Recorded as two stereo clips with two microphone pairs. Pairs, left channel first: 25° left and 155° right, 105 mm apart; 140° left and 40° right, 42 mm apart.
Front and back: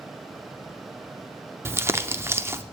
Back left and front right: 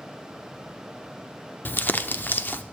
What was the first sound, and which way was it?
Crumpling, 145° left.